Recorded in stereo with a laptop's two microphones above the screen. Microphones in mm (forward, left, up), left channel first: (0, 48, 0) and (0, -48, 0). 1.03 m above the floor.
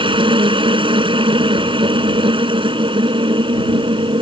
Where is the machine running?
60° right (ahead or behind).